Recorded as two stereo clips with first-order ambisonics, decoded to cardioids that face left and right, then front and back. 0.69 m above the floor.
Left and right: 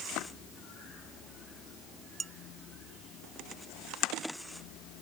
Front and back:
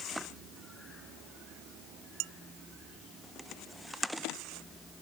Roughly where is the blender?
I don't hear a blender.